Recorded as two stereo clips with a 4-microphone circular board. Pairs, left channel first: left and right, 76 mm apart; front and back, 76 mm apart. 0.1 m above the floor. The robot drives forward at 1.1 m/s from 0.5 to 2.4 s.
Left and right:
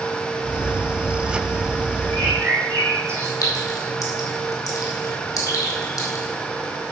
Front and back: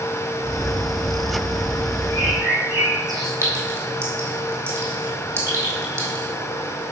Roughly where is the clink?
Behind left.